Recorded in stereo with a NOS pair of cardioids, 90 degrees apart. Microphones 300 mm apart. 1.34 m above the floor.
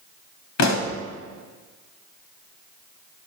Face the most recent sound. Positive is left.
turn(degrees=65)